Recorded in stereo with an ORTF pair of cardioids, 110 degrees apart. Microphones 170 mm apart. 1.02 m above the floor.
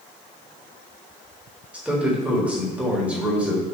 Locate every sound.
1.7 s a man speaking: 5° right, 1.5 m